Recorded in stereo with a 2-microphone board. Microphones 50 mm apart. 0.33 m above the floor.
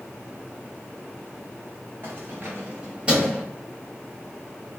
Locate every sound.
2.0 s keys jangling: 60° right (ahead or behind), 1.3 m; by 3.4 s 5° right (ahead or behind), 1.0 m